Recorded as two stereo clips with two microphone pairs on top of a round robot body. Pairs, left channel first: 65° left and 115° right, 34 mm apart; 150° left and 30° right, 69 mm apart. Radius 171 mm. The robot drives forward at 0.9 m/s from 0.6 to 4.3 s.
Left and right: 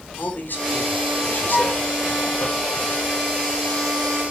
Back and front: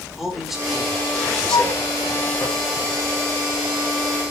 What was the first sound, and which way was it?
A man speaking, 55° left.